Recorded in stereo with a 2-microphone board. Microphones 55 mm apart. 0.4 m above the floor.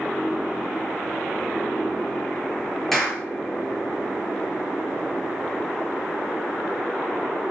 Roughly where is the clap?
Centre.